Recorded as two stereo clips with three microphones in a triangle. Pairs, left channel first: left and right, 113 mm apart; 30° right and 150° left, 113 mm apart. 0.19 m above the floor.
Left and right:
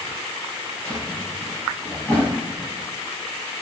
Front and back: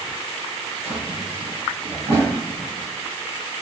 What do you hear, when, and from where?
0.8 s a drawer: 170° left, 1.6 m